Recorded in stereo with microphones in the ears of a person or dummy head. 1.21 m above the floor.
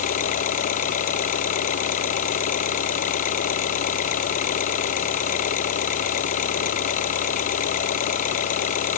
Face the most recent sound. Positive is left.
turn(degrees=45)  # may be behind; listen again after turning